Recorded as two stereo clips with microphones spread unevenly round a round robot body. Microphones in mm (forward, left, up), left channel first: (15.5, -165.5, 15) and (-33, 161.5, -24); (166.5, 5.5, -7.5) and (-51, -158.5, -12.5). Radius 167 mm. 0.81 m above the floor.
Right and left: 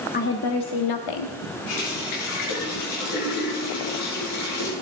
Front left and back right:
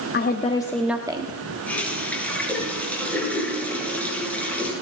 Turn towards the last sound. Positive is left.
turn(degrees=-50)